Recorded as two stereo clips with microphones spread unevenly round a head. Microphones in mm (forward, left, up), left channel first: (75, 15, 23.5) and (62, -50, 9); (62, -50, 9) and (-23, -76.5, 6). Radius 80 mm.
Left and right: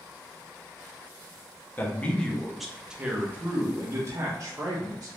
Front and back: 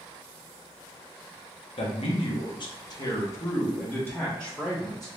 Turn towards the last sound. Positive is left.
turn(degrees=-70)